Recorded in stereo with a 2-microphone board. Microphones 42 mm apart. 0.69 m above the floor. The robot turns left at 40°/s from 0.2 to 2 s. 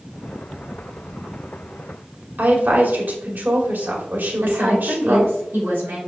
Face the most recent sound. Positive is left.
turn(degrees=-55)  # may be behind; listen again after turning